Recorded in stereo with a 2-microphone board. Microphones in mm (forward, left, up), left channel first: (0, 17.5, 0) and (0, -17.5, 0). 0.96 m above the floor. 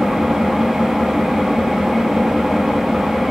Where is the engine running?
10° right (ahead or behind), 1.0 m.